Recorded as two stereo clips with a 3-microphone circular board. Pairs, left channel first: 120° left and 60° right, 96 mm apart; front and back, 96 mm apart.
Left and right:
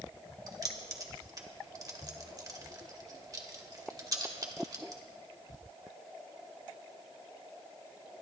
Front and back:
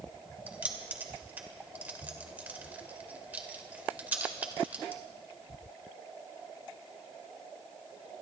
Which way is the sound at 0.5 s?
110° right.